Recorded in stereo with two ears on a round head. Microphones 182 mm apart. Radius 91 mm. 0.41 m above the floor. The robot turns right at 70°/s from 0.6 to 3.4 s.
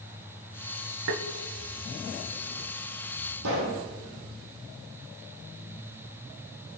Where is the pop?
85° right, 3 m.